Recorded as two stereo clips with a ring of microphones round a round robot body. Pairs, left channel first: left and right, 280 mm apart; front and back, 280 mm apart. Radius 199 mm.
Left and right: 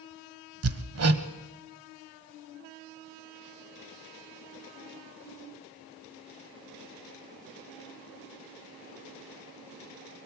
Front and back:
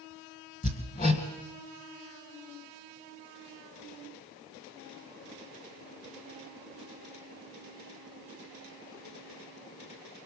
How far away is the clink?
I don't hear a clink.